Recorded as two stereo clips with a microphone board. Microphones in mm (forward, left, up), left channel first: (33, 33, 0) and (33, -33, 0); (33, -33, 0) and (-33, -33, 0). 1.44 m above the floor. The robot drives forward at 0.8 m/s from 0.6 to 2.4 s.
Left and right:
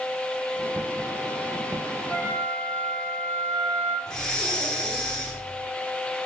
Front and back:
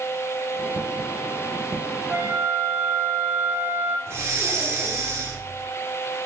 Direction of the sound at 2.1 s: 125° left.